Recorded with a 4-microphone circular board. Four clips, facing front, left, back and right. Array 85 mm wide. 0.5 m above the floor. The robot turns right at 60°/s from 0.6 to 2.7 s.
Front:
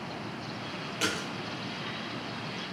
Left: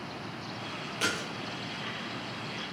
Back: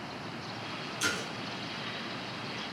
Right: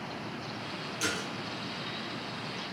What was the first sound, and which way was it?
A splash, 35° left.